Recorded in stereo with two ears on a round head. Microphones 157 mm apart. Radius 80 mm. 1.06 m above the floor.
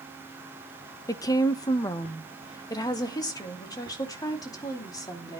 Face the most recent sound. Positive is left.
turn(degrees=20)  # may be behind; listen again after turning